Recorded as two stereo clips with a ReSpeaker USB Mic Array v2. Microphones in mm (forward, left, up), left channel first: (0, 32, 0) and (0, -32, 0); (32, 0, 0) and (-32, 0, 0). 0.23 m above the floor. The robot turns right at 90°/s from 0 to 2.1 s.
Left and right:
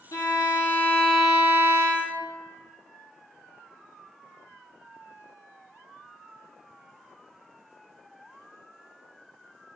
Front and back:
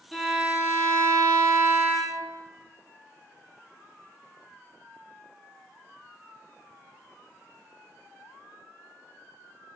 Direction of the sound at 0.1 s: 85° left.